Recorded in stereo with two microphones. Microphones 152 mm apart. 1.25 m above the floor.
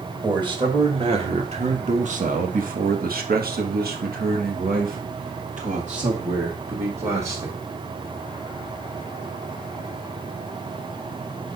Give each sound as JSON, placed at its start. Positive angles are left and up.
{"t": 0.2, "sound": "a man speaking", "side_deg": -30, "distance_m": 2.0}